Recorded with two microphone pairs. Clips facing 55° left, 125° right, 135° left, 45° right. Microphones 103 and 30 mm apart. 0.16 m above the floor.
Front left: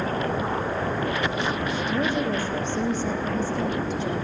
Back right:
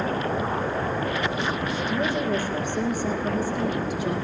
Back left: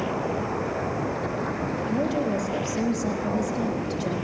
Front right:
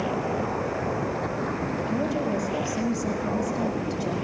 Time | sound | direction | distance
1.9 | a woman speaking | 155° left | 8.5 m